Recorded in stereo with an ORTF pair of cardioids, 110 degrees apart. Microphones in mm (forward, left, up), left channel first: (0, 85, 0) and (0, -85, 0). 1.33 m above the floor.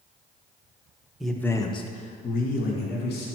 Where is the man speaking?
Straight ahead, 1.2 m; by 3.3 s 75° left, 2 m.